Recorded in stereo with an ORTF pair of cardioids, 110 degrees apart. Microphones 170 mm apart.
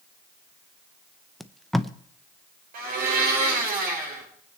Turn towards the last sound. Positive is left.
turn(degrees=-60)